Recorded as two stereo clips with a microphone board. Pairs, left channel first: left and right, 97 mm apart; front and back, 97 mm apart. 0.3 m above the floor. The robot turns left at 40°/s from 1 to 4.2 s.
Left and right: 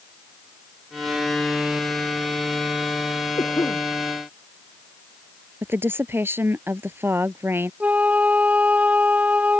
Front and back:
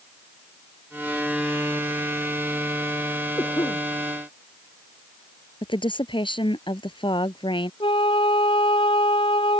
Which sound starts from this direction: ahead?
A flute, at 7.8 s.